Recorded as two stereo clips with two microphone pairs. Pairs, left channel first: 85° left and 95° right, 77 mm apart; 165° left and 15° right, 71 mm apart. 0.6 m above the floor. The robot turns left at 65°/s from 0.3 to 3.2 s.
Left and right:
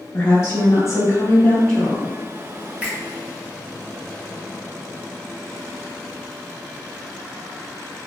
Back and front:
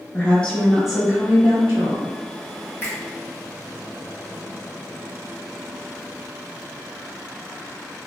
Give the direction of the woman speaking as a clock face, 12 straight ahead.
8 o'clock.